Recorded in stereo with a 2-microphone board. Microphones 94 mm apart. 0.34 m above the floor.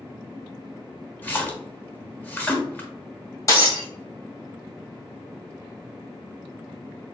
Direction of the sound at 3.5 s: 35° left (ahead or behind).